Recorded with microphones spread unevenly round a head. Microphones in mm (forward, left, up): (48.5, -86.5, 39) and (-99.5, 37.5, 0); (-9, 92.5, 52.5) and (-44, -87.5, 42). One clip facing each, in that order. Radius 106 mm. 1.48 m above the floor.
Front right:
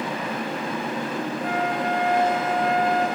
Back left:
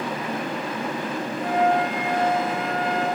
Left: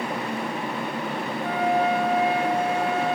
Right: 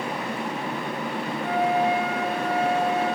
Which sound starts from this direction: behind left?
A flute, at 1.4 s.